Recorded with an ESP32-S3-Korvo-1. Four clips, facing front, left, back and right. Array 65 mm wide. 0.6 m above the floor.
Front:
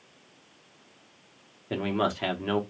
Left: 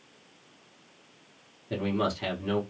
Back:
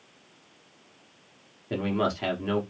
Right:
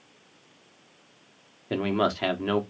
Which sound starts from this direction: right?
A man speaking, at 1.7 s.